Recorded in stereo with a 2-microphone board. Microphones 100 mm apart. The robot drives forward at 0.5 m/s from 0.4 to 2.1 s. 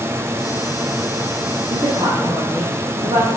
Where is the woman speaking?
50° right (ahead or behind), 4.5 m; by 3.3 s 45° right (ahead or behind), 5 m.